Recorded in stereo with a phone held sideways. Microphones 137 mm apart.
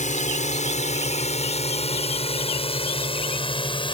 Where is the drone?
60° left (ahead or behind); by 4.0 s 35° left (ahead or behind).